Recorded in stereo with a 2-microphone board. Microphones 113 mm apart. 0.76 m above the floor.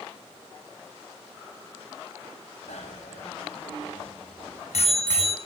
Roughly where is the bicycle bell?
Left.